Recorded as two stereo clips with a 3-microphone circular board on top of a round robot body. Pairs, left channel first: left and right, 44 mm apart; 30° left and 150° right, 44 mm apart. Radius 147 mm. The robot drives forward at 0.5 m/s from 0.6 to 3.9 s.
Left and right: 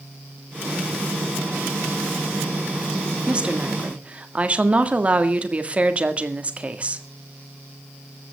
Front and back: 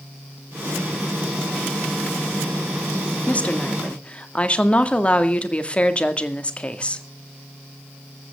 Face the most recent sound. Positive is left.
turn(degrees=-35)